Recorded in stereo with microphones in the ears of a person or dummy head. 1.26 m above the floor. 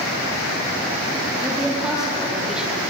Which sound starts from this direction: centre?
A woman speaking, at 1.4 s.